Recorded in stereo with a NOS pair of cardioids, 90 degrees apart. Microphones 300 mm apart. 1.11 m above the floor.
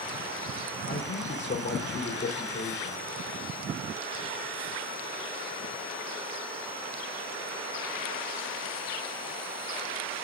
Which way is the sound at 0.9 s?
35° left.